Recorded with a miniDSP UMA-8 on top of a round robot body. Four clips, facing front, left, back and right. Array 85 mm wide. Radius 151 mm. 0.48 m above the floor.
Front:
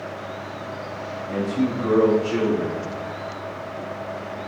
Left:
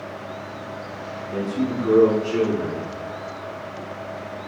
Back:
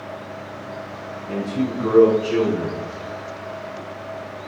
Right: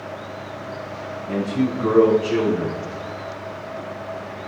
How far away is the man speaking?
About 5.5 m.